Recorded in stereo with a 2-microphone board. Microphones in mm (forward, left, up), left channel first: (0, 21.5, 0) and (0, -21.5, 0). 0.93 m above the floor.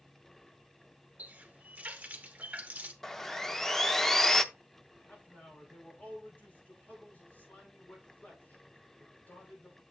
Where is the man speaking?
40° left (ahead or behind), 5.5 m.